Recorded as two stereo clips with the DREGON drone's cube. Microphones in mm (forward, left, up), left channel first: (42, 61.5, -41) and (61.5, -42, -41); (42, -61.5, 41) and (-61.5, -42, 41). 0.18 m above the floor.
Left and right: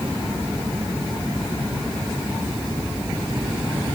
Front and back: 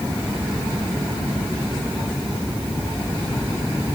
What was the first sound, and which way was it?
Only background noise.